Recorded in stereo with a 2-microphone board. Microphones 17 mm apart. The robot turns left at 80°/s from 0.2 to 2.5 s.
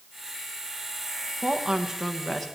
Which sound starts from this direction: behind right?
A woman speaking, at 1.4 s.